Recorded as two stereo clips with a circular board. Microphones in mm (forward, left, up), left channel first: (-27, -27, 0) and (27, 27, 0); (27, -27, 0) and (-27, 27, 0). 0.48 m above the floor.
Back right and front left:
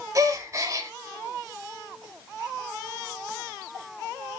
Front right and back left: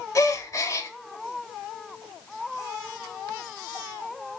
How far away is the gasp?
About 0.7 m.